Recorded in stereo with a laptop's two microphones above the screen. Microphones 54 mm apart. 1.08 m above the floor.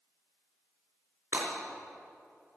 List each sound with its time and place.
1.3 s breaking glass: 30° right (ahead or behind), 3.5 m